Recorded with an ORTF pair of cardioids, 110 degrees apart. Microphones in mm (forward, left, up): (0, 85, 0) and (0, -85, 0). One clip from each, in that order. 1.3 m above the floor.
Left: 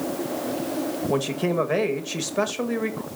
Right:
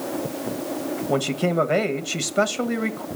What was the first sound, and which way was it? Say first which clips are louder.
A man speaking: right 3 dB; 15° right.